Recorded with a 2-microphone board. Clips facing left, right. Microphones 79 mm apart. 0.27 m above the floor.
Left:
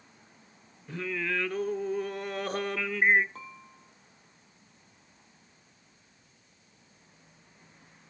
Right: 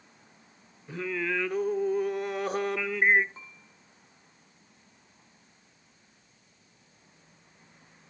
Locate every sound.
0.9 s singing: 5° right (ahead or behind), 1.0 m
3.4 s dishes clattering: 85° left, 5.5 m